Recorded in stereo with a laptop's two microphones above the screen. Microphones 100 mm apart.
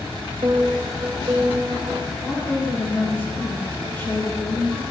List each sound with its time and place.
0.4 s a piano: 55° right (ahead or behind), 0.6 m
2.2 s a woman speaking: 10° left (ahead or behind), 2.5 m